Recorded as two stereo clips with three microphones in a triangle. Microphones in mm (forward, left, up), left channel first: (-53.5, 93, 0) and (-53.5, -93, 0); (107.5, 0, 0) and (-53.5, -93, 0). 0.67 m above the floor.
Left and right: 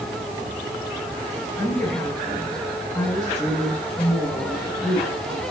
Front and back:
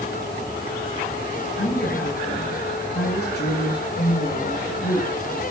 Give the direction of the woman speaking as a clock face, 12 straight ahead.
12 o'clock.